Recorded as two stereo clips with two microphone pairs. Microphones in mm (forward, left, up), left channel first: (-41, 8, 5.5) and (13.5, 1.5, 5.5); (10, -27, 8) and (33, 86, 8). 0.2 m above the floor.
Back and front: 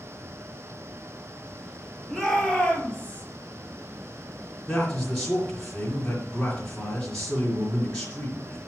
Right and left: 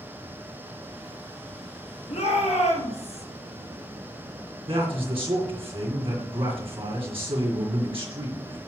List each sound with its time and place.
2.1 s a shout: 100° right, 4 m; by 3.2 s 110° right, 4 m
4.7 s a man speaking: 100° left, 3 m